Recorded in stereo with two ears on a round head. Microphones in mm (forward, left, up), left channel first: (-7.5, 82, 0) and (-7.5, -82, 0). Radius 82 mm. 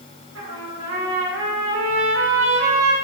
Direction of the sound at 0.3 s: 80° right.